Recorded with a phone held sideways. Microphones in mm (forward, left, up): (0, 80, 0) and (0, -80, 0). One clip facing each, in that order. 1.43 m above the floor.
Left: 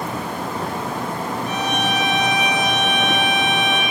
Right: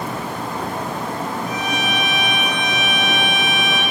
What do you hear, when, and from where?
1.5 s a violin: 80° left, 5.5 m